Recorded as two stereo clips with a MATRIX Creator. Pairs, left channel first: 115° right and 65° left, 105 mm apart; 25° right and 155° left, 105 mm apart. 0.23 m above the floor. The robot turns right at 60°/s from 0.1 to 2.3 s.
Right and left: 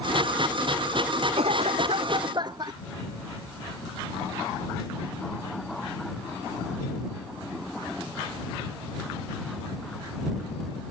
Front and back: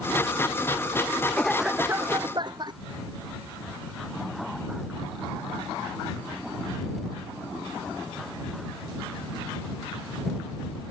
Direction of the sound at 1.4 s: 55° left.